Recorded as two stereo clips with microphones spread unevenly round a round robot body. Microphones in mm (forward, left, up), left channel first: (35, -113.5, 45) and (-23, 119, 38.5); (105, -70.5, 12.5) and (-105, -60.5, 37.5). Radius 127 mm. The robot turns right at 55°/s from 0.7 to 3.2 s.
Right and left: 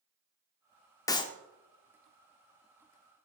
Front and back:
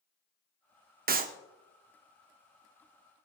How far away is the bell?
I don't hear a bell.